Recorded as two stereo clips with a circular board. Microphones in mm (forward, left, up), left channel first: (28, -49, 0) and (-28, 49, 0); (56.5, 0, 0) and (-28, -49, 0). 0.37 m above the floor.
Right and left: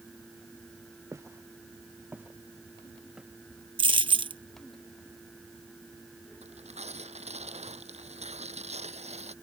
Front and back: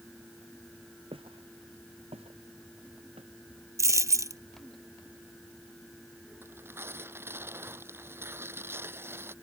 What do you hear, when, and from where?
1.1 s footsteps: 175° right; by 3.3 s 155° right
3.8 s a dropped coin: 155° left
6.4 s tearing paper: 145° left